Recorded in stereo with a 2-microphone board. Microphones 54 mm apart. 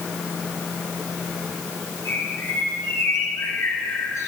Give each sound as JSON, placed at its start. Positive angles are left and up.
{"t": 2.0, "sound": "a bird", "side_deg": 70, "distance_m": 8.0}